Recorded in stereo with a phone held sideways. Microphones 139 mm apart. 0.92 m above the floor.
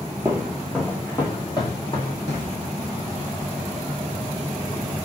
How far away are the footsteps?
About 0.9 m.